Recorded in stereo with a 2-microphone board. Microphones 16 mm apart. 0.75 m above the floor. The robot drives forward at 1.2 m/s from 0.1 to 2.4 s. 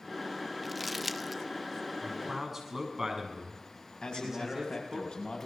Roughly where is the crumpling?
Centre.